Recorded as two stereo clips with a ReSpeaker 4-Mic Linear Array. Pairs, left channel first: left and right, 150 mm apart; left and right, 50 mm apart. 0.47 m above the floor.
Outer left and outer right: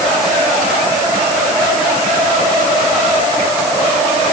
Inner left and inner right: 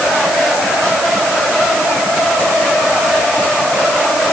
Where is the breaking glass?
No breaking glass in this recording.